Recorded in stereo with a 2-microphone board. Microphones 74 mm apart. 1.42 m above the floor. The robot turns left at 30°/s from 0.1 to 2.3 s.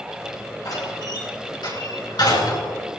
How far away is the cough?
I don't hear a cough.